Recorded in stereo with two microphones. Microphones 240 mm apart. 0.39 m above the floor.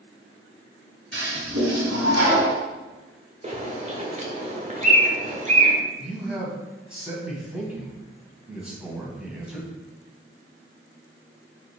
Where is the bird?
30° right (ahead or behind), 1.5 m.